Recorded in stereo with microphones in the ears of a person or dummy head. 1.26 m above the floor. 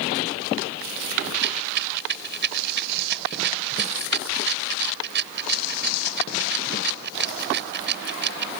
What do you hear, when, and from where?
1.3 s a rattle: 60° right (ahead or behind)